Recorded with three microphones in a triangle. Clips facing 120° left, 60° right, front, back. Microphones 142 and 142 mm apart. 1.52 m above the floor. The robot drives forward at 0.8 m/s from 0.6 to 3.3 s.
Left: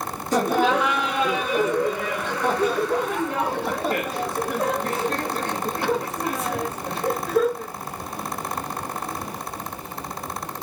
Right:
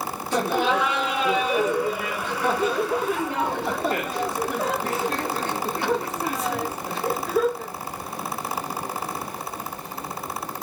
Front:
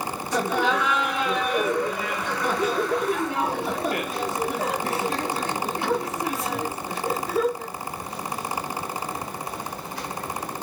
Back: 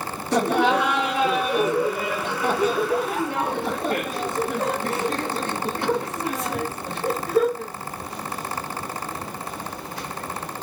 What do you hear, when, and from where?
0.3 s laughter: 165° left, 0.9 m; by 7.7 s 175° left, 3 m